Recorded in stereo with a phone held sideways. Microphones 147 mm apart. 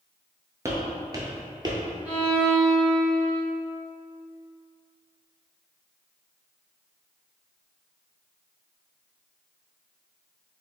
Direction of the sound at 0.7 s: 20° right (ahead or behind).